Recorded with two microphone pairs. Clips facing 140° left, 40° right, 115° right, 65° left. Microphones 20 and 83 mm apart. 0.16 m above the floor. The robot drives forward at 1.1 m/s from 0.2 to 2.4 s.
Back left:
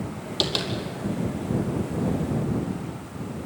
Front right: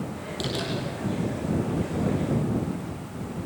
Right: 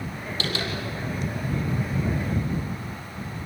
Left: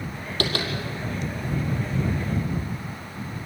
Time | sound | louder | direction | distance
0.4 | tapping | back left 5 dB, left 3 dB | 95° left | 4.5 m